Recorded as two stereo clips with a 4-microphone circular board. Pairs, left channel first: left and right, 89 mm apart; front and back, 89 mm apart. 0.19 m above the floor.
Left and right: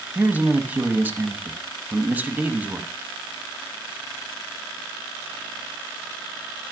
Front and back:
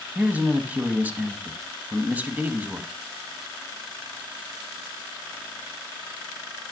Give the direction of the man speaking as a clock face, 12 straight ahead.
4 o'clock.